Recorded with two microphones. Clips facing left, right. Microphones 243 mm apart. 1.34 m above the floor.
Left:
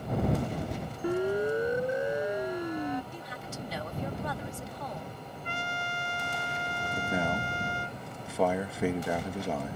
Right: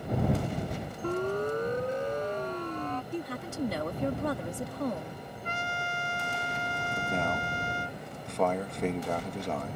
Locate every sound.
1.0 s a siren: 10° left (ahead or behind); by 3.0 s 15° left (ahead or behind)
3.1 s a woman speaking: 60° right (ahead or behind)
5.4 s a trumpet: 40° right (ahead or behind)
7.0 s a man speaking: 5° left (ahead or behind)